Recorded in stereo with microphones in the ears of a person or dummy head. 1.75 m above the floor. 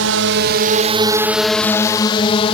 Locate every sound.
0.0 s a drone: 75° right (ahead or behind); by 2.6 s 30° left (ahead or behind)